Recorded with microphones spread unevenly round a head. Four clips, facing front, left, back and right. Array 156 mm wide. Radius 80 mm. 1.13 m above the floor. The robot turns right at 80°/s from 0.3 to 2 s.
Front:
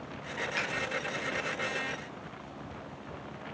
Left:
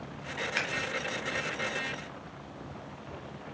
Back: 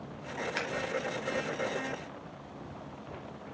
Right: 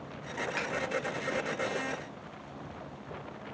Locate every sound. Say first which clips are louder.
0.6 s scissors: left 3 dB, front 1 dB; 160° left, 1.3 m; by 0.7 s 170° left, 1.3 m